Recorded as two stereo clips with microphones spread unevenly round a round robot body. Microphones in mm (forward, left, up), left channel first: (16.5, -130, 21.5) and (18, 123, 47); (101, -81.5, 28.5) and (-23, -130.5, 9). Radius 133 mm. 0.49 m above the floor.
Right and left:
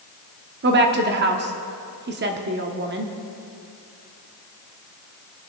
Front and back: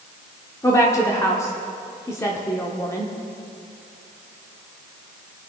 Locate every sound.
0.6 s a woman speaking: 90° left, 0.9 m